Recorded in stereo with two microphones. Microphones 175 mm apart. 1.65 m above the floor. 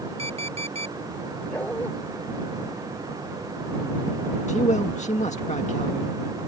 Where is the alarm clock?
35° right (ahead or behind).